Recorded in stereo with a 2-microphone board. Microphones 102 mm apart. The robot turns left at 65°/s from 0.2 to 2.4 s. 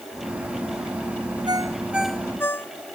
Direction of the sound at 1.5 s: 140° right.